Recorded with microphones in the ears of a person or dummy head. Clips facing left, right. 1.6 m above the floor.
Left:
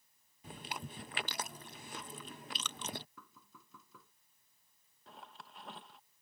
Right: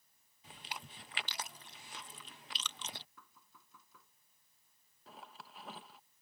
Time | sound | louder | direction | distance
0.4 | chewing | left 5 dB | 45° left (ahead or behind) | ?
3.2 | knocking | left 5 dB | 70° left (ahead or behind) | ?
5.1 | a zipper | even | centre (ahead or behind) | ?